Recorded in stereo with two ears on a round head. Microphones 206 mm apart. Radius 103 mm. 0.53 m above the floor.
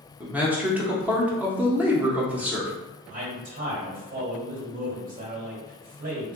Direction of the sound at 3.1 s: 40° right (ahead or behind).